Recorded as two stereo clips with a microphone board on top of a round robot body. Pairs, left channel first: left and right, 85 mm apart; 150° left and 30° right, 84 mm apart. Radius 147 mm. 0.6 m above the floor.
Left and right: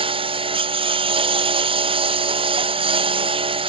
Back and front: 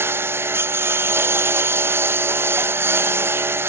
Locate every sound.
0.0 s a lawn mower: 95° right